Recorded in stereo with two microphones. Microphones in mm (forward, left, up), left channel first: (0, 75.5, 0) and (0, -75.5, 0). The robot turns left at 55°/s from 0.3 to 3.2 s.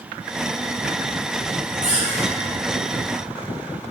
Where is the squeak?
55° right (ahead or behind), 2.0 m; by 2.3 s 80° right, 2.0 m.